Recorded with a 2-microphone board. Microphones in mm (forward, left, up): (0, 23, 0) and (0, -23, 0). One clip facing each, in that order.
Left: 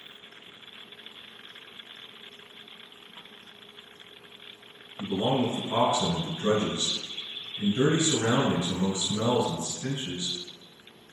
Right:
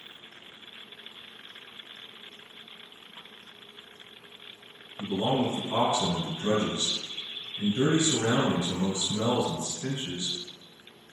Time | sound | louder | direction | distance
5.0 | a man speaking | left 1 dB | 30° left (ahead or behind) | 1.8 m